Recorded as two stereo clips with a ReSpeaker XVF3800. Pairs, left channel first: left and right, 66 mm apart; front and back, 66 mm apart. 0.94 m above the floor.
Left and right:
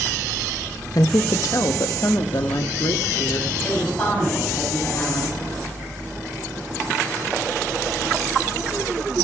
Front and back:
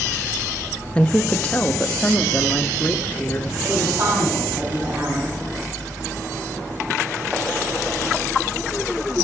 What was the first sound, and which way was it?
A woman speaking, 70° left.